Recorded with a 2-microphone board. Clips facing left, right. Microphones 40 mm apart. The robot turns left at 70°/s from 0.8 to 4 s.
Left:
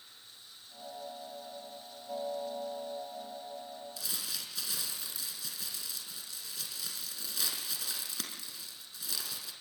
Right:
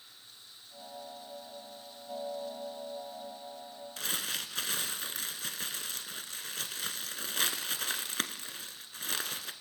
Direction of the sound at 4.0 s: 55° right (ahead or behind).